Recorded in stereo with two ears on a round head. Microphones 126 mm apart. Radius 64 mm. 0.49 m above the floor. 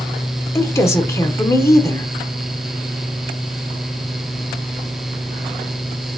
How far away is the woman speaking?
About 1.1 m.